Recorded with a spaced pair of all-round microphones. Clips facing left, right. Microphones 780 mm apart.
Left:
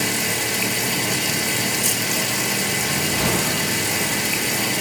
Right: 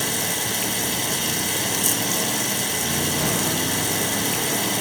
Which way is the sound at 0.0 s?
60° left (ahead or behind).